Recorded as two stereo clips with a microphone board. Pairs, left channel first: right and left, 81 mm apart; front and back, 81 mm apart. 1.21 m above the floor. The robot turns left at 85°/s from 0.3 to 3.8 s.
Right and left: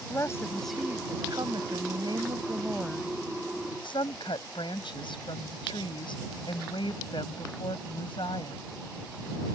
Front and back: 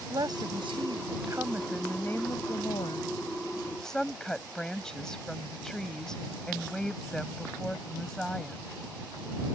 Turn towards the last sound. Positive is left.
turn(degrees=-80)